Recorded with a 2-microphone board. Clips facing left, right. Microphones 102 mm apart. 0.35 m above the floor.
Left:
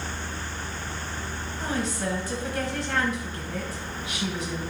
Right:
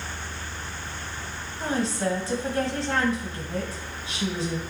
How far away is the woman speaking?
About 1.6 m.